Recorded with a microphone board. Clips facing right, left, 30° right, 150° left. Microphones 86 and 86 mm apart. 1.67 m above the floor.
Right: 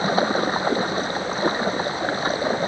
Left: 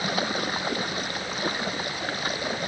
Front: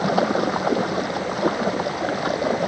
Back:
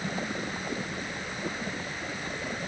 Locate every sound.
0.0 s running water: 30° right